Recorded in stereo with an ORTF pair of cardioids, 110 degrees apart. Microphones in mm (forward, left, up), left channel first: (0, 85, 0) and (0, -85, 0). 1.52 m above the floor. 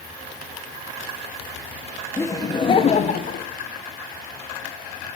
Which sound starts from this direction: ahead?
Laughter, at 2.2 s.